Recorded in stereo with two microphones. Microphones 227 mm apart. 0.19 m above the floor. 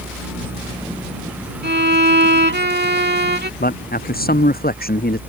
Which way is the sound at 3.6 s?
45° left (ahead or behind).